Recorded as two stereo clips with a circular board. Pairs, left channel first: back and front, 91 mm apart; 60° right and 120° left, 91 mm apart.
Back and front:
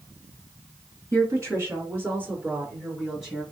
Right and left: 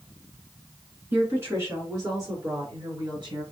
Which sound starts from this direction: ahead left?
A woman speaking, at 1.1 s.